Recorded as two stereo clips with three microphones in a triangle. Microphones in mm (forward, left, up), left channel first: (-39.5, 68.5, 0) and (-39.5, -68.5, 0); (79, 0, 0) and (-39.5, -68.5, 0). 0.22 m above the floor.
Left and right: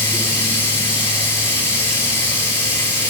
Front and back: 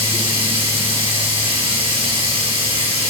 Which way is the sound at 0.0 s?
165° left.